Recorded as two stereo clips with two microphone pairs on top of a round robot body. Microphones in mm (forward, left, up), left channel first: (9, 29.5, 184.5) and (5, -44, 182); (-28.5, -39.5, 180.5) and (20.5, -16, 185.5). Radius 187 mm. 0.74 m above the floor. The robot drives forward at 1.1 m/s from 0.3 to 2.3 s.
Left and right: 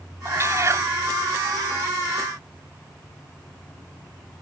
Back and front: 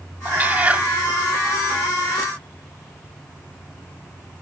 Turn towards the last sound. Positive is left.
turn(degrees=-70)